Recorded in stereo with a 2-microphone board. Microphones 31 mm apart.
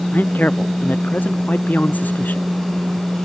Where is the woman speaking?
65° left (ahead or behind).